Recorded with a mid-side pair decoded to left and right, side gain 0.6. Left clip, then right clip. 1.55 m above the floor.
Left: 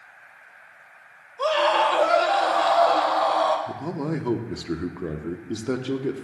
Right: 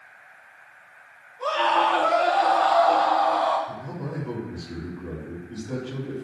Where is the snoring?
No snoring in this recording.